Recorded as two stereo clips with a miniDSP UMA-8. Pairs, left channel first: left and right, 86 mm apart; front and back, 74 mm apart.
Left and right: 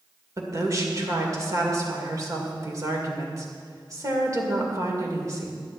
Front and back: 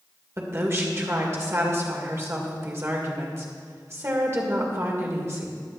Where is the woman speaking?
130° right, 2 m.